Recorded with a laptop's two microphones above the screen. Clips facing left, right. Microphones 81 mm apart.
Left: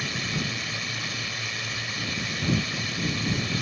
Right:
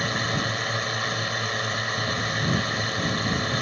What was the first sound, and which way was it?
A drone, 50° right (ahead or behind).